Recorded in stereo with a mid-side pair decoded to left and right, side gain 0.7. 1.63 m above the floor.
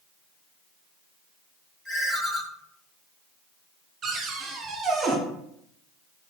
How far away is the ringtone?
About 2.0 m.